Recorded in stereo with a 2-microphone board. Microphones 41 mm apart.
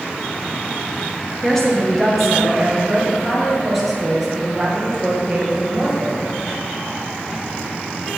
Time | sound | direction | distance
1.4 | a woman speaking | 10° left (ahead or behind) | 4.5 m